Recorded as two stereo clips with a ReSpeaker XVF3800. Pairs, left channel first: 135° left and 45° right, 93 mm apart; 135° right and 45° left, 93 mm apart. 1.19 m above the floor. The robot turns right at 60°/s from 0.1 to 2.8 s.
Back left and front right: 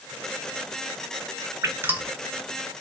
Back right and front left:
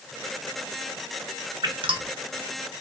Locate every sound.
1.6 s dripping: 10° left, 0.7 m; by 2.1 s 35° left, 0.7 m